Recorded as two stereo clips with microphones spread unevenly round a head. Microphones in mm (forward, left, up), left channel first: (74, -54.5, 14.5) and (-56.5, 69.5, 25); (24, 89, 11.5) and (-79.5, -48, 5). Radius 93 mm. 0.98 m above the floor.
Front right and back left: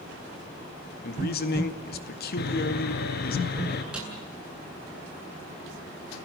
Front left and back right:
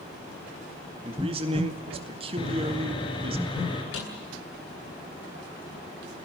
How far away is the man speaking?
About 2.0 m.